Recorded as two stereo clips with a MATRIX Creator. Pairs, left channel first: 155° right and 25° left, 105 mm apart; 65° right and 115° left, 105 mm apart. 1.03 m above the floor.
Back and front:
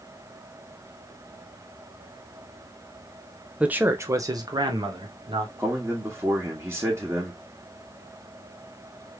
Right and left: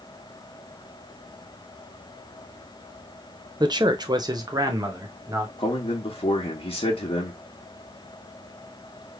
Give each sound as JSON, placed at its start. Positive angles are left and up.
{"t": 3.6, "sound": "a man speaking", "azimuth_deg": 95, "distance_m": 0.6}
{"t": 5.6, "sound": "a man speaking", "azimuth_deg": -45, "distance_m": 1.3}